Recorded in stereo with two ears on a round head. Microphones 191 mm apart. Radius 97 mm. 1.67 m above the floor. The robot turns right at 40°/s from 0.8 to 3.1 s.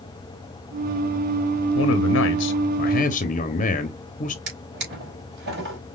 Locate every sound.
1.8 s a man speaking: 85° left, 0.8 m; by 4.4 s 140° left, 0.8 m
4.5 s a drawer: 60° right (ahead or behind), 4 m